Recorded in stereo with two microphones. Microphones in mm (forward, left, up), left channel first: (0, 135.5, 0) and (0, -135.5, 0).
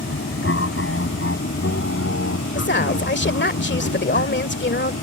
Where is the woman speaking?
40° left (ahead or behind).